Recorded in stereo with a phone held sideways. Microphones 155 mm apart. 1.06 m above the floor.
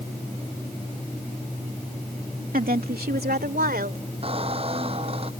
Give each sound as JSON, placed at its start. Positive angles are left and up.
{"t": 2.5, "sound": "a woman speaking", "side_deg": -65}
{"t": 4.2, "sound": "a squeak", "side_deg": -40}